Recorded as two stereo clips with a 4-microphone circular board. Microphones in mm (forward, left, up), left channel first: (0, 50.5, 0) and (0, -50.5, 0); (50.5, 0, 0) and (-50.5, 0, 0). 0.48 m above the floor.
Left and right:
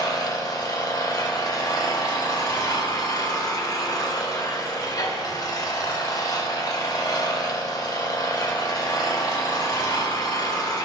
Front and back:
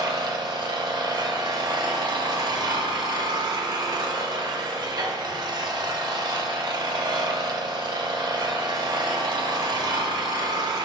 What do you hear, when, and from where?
0.0 s an engine running: 135° left, 0.7 m